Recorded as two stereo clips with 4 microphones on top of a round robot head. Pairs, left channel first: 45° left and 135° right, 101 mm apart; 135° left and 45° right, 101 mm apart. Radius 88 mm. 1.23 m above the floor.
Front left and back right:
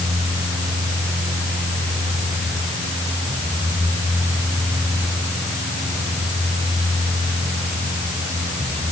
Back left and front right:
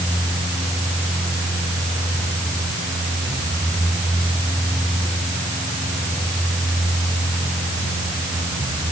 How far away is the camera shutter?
I don't hear a camera shutter.